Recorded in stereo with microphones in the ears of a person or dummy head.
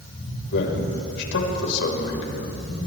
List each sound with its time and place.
0.5 s a man speaking: 65° left (ahead or behind), 5.5 m